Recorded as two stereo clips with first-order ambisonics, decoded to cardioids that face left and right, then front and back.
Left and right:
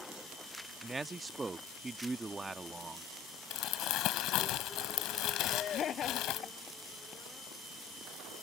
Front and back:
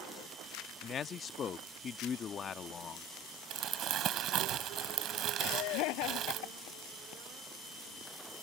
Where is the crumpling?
130° left.